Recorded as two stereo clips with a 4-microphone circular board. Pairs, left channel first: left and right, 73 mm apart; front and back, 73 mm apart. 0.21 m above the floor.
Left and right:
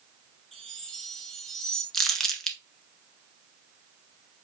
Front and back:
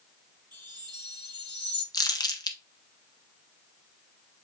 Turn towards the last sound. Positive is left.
turn(degrees=5)